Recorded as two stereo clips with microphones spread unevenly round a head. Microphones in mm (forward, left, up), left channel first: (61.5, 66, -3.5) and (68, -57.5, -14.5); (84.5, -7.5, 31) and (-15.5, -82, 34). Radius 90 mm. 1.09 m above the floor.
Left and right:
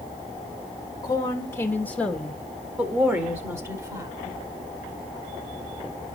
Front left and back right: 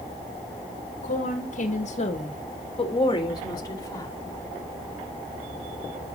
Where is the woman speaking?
35° left, 1.7 m; by 4.1 s 30° right, 2.5 m.